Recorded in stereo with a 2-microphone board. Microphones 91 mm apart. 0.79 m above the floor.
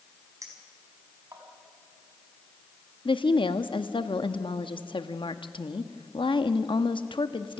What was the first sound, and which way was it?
A clink, 40° right (ahead or behind).